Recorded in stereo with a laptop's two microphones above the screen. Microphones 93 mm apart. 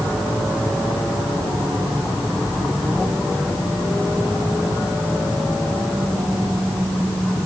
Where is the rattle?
I don't hear a rattle.